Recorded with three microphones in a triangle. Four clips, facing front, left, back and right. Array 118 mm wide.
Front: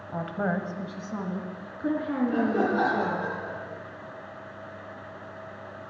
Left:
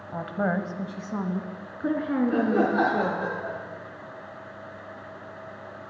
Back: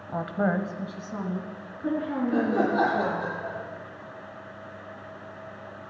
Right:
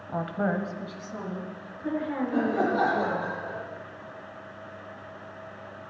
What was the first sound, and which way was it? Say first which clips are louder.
A woman speaking: left 1 dB, back 3 dB; 145° right.